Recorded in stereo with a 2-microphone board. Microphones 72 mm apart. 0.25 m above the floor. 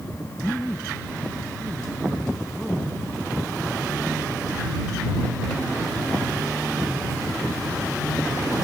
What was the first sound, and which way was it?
A man speaking, 30° left (ahead or behind).